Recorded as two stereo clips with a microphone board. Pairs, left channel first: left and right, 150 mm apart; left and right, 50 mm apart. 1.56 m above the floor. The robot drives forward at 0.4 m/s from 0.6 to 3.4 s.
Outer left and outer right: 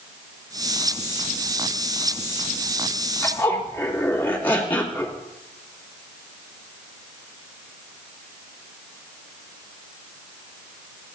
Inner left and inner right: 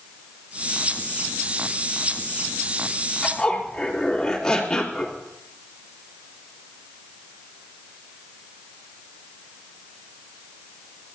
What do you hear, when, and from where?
3.2 s a zipper: 15° left (ahead or behind), 2.5 m